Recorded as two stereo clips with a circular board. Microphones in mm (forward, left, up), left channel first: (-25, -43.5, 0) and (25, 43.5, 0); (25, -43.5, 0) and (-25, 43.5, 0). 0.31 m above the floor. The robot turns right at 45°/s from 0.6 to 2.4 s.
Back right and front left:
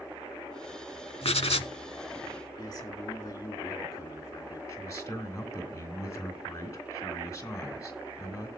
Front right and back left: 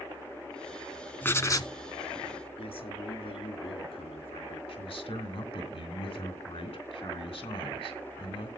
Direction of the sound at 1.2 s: 130° right.